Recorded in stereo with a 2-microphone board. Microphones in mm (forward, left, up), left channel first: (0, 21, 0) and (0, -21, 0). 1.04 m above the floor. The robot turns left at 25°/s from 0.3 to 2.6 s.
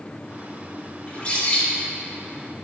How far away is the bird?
About 2.5 m.